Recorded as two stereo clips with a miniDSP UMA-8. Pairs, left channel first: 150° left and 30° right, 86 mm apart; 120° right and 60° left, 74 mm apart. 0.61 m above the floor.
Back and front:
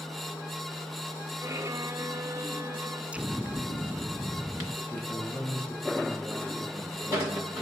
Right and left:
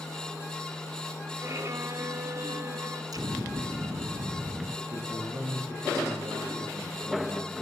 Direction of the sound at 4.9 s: 80° left.